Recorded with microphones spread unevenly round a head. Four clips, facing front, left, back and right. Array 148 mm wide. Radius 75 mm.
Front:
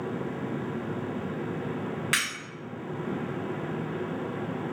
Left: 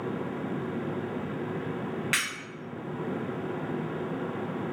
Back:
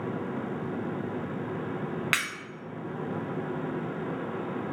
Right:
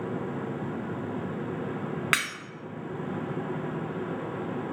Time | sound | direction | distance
2.1 | breaking glass | 95° right | 1.5 m